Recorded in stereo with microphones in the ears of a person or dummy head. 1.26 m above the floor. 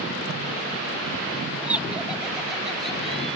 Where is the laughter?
15° right (ahead or behind); by 3.4 s 5° right (ahead or behind).